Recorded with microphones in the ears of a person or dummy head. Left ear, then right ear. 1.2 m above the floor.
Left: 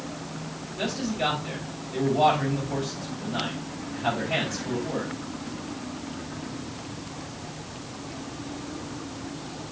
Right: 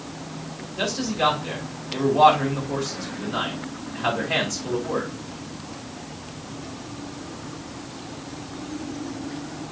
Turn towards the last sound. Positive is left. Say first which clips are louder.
# right 5 dB
turn(degrees=-45)  # may be behind; listen again after turning